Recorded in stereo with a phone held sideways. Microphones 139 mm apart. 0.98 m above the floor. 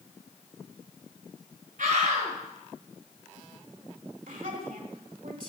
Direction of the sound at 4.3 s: 75° right (ahead or behind).